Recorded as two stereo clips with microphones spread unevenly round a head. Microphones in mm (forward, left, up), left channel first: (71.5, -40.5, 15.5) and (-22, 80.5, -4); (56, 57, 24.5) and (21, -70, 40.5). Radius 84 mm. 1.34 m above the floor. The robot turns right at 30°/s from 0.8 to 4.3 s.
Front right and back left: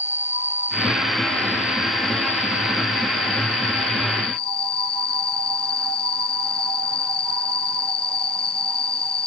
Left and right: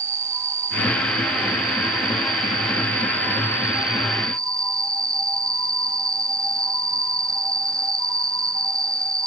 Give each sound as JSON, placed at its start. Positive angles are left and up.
{"t": 0.0, "sound": "an insect", "azimuth_deg": -150}